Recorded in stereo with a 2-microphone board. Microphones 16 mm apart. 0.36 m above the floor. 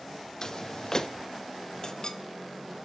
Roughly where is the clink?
Left.